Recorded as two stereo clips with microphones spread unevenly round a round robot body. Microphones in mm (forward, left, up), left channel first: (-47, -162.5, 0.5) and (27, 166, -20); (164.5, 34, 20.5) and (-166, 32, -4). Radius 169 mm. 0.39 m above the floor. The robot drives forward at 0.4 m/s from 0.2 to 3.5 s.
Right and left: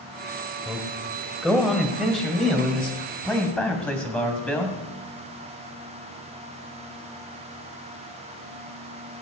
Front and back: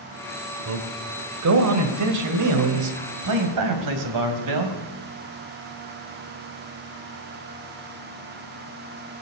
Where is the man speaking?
160° left, 1.6 m; by 4.7 s 170° left, 2.5 m.